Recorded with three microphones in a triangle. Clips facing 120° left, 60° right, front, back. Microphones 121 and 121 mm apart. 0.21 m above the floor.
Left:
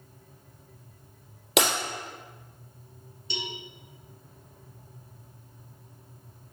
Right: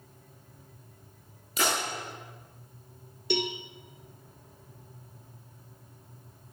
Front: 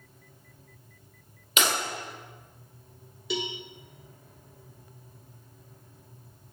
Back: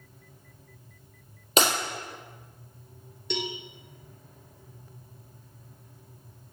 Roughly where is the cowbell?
Right.